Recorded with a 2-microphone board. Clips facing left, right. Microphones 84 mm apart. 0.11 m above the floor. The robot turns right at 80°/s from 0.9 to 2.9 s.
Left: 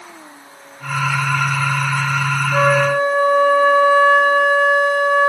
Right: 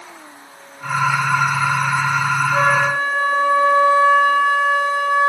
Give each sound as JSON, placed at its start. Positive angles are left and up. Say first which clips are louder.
{"t": 2.5, "sound": "a flute", "louder": "left 4 dB", "azimuth_deg": 20, "distance_m": 2.0}